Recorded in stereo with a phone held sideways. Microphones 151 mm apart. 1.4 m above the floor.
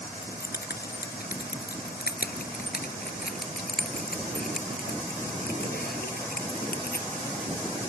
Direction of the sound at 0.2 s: 85° left.